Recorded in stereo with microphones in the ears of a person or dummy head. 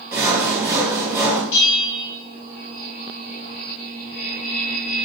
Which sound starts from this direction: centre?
Sawing, at 0.1 s.